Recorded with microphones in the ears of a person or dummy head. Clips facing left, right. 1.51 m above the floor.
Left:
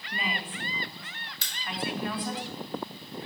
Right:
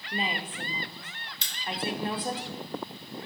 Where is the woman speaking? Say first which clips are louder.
Right 2 dB; 25° right (ahead or behind), 0.7 m.